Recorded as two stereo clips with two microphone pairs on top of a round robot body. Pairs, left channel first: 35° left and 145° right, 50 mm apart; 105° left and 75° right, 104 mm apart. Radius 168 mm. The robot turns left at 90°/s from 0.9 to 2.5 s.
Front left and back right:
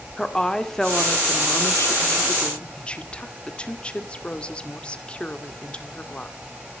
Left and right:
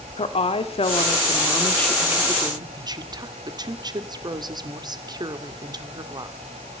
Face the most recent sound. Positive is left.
turn(degrees=-35)